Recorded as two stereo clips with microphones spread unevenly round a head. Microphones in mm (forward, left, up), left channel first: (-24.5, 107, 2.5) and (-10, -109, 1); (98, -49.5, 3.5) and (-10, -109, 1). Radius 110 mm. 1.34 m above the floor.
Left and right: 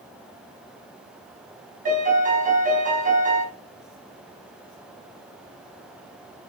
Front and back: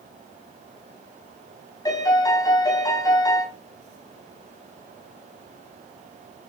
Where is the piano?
30° right, 5.5 m.